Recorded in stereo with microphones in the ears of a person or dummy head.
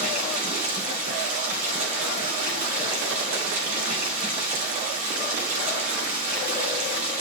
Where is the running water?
45° right (ahead or behind), 3 m.